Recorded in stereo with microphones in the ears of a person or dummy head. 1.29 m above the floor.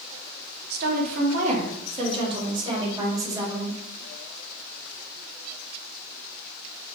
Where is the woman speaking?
60° right (ahead or behind), 2 m; by 3.8 s 20° right (ahead or behind), 4 m.